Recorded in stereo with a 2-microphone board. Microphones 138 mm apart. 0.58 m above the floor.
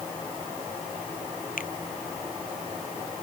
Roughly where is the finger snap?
Left.